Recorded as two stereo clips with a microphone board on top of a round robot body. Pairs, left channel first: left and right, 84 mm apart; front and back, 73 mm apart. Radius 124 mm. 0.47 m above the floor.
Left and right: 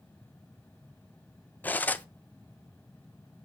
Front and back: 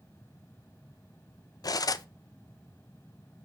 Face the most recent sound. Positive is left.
turn(degrees=20)